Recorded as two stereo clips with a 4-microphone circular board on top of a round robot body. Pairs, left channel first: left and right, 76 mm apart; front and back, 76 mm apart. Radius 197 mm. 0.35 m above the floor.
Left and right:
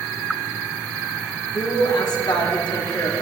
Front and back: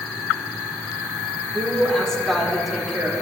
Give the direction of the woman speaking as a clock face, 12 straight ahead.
9 o'clock.